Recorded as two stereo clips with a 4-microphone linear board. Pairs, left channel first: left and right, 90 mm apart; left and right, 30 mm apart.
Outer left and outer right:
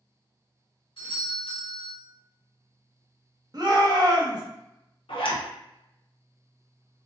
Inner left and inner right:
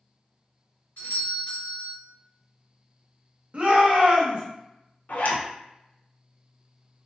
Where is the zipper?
75° left (ahead or behind), 0.6 m.